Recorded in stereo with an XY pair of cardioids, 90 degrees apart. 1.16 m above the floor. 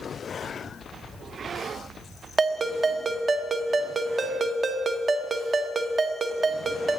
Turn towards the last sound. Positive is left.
turn(degrees=-35)